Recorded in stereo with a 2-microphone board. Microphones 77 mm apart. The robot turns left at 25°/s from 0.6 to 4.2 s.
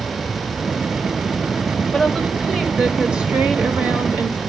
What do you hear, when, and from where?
1.9 s a woman speaking: centre (ahead or behind), 1.5 m; by 4.4 s 20° right (ahead or behind), 1.5 m